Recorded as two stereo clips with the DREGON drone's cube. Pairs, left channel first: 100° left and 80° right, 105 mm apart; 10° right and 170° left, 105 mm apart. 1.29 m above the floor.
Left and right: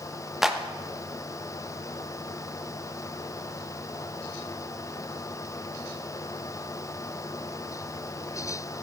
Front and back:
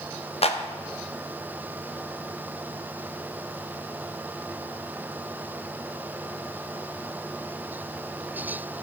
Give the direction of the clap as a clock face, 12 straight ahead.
12 o'clock.